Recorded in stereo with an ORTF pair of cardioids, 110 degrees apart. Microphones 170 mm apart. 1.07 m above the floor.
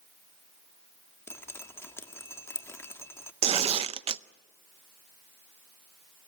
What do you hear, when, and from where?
1.3 s dripping: 15° left, 1.7 m
3.4 s tearing paper: 35° right, 0.6 m